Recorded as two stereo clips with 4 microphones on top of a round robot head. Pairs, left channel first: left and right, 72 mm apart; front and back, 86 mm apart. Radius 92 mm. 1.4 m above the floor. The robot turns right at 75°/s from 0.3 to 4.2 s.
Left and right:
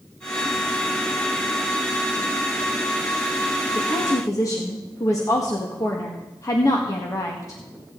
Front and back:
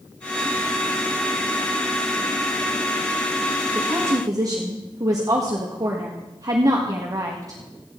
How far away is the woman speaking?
About 1.7 m.